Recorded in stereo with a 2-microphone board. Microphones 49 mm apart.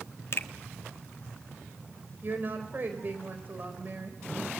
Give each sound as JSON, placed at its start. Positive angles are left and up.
{"t": 0.3, "sound": "a finger snap", "side_deg": 55, "distance_m": 1.5}
{"t": 2.2, "sound": "a woman speaking", "side_deg": -40, "distance_m": 4.5}